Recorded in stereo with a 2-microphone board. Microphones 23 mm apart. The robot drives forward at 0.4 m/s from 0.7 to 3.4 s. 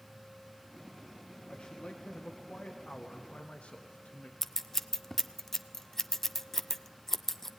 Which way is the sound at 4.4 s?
15° left (ahead or behind).